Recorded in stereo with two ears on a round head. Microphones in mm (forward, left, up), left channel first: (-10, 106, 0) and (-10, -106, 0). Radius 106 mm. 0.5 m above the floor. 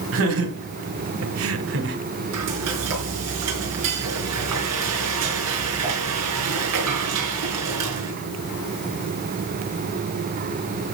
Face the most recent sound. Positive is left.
turn(degrees=-70)  # may be behind; listen again after turning